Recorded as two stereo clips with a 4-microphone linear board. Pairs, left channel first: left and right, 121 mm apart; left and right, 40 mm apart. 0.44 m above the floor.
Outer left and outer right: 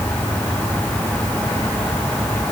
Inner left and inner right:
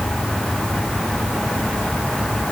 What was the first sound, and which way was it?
Only background noise.